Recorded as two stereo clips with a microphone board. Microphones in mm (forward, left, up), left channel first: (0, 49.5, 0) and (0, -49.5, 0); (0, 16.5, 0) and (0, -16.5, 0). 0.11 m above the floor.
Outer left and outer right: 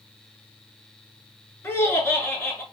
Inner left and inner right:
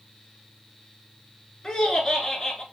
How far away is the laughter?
About 1.1 m.